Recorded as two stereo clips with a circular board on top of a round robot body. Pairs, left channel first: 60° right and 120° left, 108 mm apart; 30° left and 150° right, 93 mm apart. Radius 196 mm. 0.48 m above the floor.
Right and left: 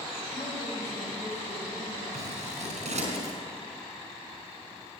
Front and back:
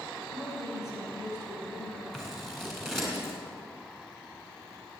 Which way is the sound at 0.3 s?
30° right.